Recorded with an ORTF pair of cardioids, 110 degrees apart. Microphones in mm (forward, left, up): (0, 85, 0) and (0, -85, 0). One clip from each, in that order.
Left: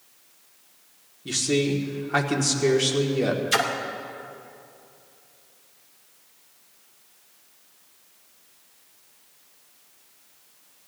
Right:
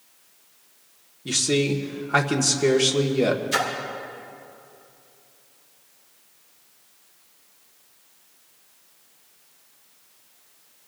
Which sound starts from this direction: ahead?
A man speaking, at 1.2 s.